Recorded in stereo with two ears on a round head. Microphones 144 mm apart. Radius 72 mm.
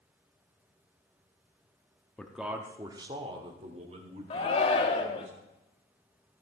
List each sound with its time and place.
2.2 s a man speaking: 10° left (ahead or behind), 0.7 m; by 5.3 s 50° right (ahead or behind), 2.5 m
4.3 s a shout: 35° left (ahead or behind), 1.4 m